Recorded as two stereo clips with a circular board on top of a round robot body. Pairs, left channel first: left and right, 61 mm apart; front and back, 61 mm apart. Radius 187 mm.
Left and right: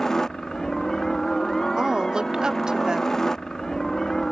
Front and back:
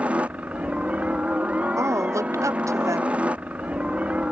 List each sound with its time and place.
0.0 s a helicopter: 160° left
1.8 s a woman speaking: 165° right